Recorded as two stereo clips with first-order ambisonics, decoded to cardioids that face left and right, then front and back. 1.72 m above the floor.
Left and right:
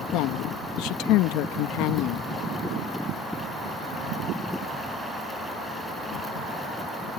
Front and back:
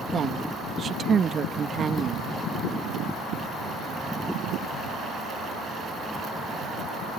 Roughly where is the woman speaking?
Behind left.